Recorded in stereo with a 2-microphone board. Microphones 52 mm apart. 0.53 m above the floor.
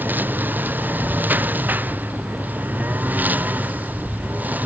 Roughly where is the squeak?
I don't hear a squeak.